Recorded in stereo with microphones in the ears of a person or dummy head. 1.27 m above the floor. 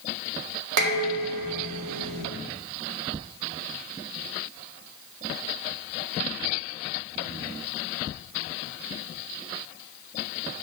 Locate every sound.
0.8 s dishes clattering: 70° right (ahead or behind), 1.9 m